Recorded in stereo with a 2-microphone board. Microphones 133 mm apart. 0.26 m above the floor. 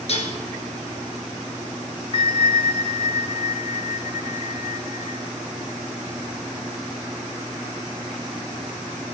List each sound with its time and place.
0.1 s dishes clattering: 50° left (ahead or behind), 2.5 m
2.1 s a bell: 40° left (ahead or behind), 0.6 m